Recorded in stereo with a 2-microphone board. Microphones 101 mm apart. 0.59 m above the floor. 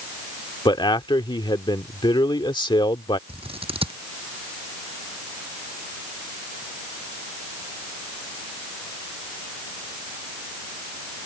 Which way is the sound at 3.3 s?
70° right (ahead or behind).